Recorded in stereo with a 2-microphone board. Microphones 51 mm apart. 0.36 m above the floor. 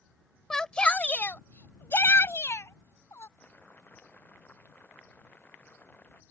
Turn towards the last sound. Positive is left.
turn(degrees=35)  # may be behind; listen again after turning